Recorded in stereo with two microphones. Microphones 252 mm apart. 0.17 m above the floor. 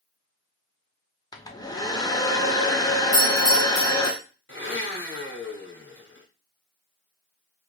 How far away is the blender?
About 1.3 m.